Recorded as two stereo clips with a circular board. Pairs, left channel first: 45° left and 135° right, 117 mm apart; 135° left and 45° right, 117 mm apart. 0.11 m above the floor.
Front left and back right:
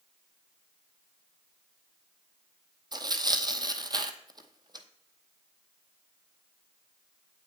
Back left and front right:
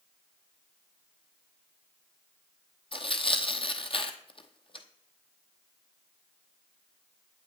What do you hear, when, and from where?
2.9 s tearing paper: 175° left, 0.8 m